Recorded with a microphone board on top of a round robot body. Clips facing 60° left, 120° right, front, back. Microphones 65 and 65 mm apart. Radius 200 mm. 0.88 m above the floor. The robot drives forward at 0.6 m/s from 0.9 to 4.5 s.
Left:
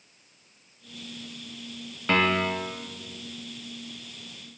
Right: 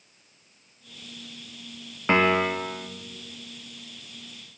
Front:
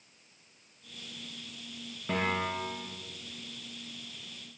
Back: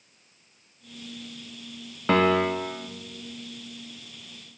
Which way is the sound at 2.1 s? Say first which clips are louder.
Right 3 dB, back 10 dB; 170° left.